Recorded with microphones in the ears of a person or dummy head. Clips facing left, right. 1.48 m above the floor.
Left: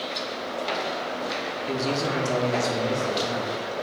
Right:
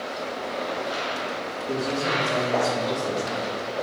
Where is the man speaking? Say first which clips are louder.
Even; 55° left (ahead or behind), 1.0 m; by 3.6 s 60° left (ahead or behind), 1.8 m.